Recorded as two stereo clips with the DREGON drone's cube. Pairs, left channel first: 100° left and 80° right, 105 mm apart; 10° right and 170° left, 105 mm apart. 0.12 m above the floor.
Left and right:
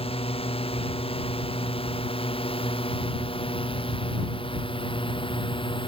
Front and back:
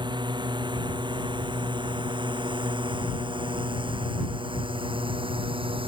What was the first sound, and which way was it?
A drone, 125° left.